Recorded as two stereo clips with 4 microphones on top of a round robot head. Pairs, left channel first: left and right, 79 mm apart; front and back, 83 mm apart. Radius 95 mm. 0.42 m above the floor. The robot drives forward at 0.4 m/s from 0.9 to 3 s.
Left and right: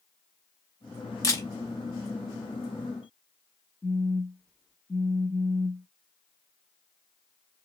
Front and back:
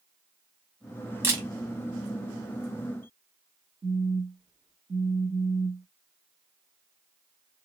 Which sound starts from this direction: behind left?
A camera shutter, at 1.2 s.